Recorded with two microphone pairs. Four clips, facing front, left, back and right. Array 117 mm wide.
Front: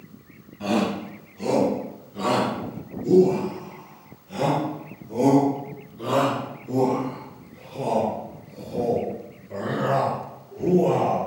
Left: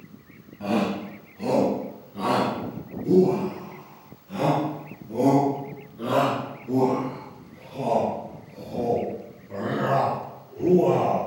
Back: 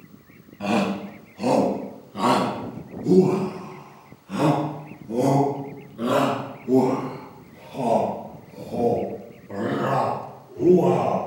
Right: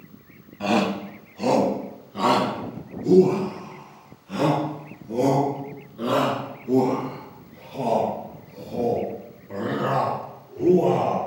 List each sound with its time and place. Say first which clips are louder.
0.6 s a shout: right 3 dB, back 1 dB; 105° right, 1.9 m; by 11.2 s 160° right, 7.5 m